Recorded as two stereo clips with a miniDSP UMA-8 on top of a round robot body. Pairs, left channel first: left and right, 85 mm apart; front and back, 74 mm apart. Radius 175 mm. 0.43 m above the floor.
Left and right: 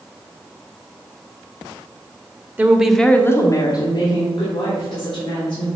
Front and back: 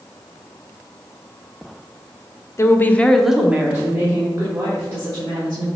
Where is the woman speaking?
30° right, 1.1 m; by 5.7 s 130° left, 3.5 m.